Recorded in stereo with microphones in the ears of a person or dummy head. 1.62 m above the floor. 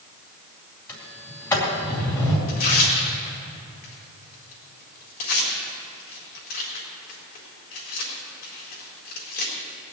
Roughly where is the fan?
No fan in this recording.